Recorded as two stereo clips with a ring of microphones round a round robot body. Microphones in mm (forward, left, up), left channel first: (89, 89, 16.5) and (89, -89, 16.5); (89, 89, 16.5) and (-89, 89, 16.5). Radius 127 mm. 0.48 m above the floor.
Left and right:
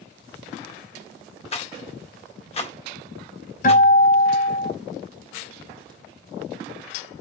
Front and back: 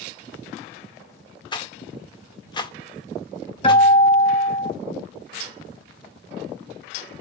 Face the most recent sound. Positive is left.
turn(degrees=60)